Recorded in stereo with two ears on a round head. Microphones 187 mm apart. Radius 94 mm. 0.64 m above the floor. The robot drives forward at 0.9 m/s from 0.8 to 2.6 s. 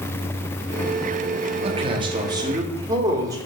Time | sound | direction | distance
1.6 | a man speaking | 30° right (ahead or behind) | 1.1 m